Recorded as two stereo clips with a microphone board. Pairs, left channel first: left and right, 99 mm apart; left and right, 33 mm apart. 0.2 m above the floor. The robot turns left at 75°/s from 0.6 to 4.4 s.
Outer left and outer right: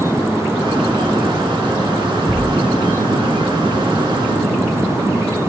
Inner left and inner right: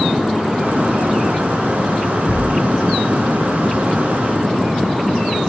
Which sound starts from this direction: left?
A thud, at 2.3 s.